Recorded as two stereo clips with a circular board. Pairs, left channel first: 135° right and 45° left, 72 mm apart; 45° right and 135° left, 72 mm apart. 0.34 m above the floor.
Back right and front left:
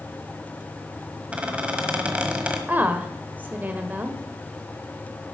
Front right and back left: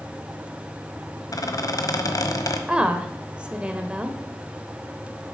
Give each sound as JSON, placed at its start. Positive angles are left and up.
{"t": 1.3, "sound": "a squeak", "azimuth_deg": -25, "distance_m": 1.3}
{"t": 2.7, "sound": "a woman speaking", "azimuth_deg": 80, "distance_m": 0.9}